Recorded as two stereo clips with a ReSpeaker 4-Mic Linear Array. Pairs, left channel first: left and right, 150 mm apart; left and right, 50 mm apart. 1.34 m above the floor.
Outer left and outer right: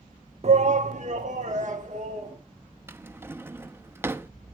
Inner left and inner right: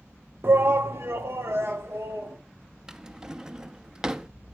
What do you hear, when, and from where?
0.4 s a shout: 45° right (ahead or behind), 0.7 m; by 2.4 s 55° right (ahead or behind), 3 m
2.9 s a drawer: 15° right (ahead or behind), 0.7 m